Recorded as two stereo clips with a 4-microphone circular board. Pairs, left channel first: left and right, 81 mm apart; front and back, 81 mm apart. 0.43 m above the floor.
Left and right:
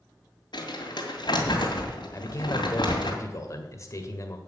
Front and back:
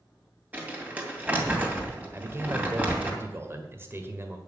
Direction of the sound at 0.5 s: 110° left.